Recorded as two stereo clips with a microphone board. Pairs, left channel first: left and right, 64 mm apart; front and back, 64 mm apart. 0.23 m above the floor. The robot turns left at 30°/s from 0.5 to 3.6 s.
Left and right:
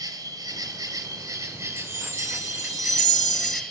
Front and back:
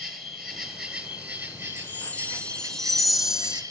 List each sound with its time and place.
0.0 s an insect: 85° right, 2.5 m; by 3.7 s straight behind, 2.5 m
1.8 s a chime: 50° right, 0.5 m; by 3.6 s 105° right, 0.5 m